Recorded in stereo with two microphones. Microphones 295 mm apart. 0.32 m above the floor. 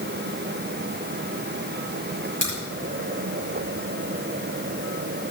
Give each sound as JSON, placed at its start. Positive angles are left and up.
{"t": 2.4, "sound": "a crack", "side_deg": 65, "distance_m": 6.5}